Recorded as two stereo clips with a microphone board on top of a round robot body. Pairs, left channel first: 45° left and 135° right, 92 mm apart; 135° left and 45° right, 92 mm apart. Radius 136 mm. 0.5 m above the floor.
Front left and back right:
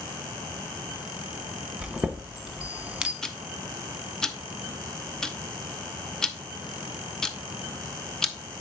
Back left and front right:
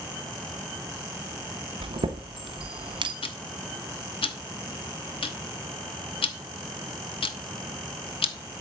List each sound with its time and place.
1.8 s a chime: 55° right, 1.2 m
3.2 s ticking: 130° left, 0.9 m